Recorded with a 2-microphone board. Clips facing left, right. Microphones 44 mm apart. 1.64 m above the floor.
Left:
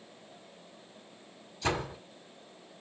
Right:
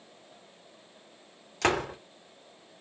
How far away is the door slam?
About 2.5 m.